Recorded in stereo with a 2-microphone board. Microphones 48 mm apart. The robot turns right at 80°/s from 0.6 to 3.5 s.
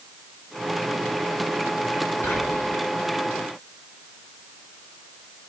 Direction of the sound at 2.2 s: 60° left.